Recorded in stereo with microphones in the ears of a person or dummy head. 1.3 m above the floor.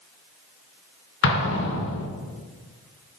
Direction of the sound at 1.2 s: 70° left (ahead or behind).